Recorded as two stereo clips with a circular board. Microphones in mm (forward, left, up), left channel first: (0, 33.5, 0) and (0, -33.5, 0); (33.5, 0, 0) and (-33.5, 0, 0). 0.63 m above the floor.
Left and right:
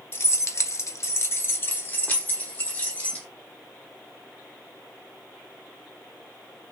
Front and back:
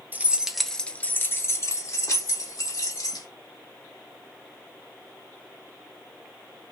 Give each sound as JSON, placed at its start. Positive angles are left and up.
{"t": 0.1, "sound": "keys jangling", "azimuth_deg": 125, "distance_m": 0.6}